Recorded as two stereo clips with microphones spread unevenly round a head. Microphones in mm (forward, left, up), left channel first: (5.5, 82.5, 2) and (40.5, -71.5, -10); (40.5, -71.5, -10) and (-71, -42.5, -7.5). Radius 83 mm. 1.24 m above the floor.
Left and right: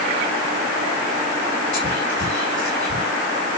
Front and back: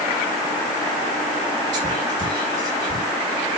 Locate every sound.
1.7 s whispering: 175° right, 2.5 m